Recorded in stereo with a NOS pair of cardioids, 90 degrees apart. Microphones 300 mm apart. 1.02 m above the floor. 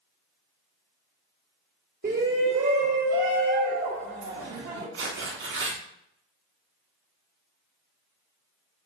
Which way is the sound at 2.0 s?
30° right.